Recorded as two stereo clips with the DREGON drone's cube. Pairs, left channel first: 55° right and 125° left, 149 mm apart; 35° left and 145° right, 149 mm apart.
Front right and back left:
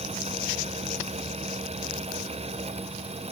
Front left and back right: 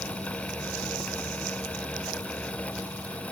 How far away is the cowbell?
No cowbell in this recording.